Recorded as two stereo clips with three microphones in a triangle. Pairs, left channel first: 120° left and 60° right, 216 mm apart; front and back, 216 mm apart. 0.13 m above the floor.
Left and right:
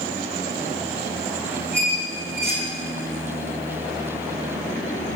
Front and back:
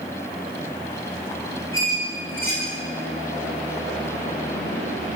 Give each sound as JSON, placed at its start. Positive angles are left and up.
{"t": 1.7, "sound": "a squeak", "azimuth_deg": 15, "distance_m": 2.5}